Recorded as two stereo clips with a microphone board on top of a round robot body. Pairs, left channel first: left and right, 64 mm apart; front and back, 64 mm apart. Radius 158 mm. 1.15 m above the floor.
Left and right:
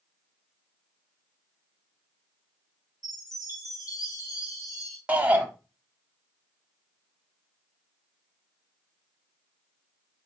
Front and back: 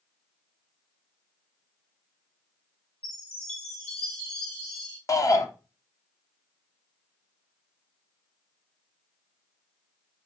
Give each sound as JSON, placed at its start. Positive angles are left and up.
{"t": 3.0, "sound": "a chime", "azimuth_deg": 70, "distance_m": 2.5}
{"t": 5.1, "sound": "a shout", "azimuth_deg": -25, "distance_m": 1.1}